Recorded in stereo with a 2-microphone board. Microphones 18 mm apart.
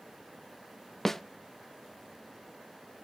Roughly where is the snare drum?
Centre.